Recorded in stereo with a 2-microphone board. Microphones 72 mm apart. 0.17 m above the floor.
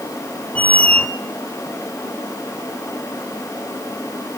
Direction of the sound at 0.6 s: 20° left (ahead or behind).